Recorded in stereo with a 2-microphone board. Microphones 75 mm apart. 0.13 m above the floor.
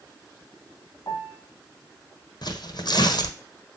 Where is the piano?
40° left (ahead or behind), 1.4 m.